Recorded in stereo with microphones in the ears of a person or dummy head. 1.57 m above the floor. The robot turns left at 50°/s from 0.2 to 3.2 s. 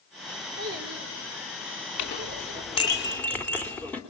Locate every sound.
0.6 s a child speaking: 55° right, 3.5 m; by 3.0 s 175° right, 3.5 m
2.0 s a clink: 70° left, 3 m; by 4.0 s 10° left, 3 m